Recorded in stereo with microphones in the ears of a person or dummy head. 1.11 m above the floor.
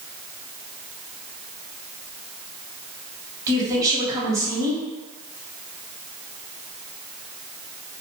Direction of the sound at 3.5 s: 20° right (ahead or behind).